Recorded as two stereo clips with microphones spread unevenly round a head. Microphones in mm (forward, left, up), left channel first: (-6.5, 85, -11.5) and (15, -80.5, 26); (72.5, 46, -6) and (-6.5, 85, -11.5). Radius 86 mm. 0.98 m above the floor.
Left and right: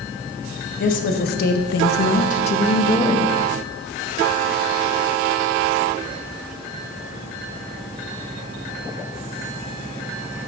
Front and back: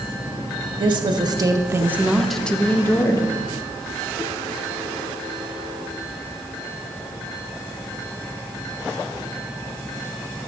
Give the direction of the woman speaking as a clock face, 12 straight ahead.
8 o'clock.